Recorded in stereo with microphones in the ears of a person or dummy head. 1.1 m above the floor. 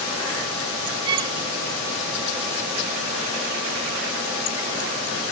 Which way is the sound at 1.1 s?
25° right (ahead or behind).